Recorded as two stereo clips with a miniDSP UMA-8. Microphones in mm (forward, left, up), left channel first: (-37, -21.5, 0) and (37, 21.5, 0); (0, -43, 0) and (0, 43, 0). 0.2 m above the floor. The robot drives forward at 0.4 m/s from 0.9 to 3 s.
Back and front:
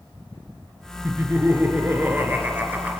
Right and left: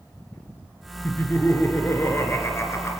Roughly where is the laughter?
Ahead right.